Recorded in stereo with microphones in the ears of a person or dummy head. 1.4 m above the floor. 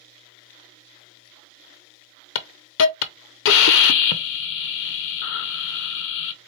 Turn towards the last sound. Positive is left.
turn(degrees=75)  # may be behind; listen again after turning